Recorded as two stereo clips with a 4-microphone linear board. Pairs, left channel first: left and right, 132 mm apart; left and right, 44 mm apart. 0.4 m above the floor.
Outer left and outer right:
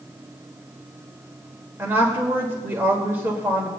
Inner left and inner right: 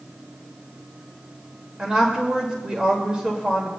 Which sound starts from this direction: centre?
A woman speaking, at 1.8 s.